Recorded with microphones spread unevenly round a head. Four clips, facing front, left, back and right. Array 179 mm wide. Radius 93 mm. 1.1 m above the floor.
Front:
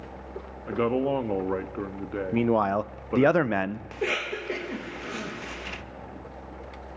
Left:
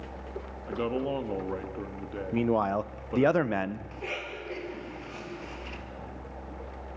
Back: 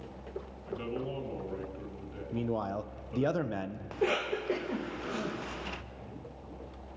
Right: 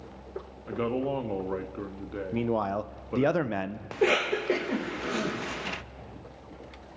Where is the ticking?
I don't hear ticking.